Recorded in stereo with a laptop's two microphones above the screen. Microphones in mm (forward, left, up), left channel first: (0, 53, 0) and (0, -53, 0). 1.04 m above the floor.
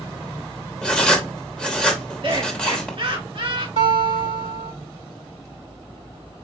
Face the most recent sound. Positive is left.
turn(degrees=-70)  # may be behind; listen again after turning